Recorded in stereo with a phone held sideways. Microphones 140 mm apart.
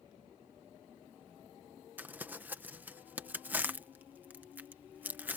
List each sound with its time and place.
2.0 s crumpling: 15° right (ahead or behind)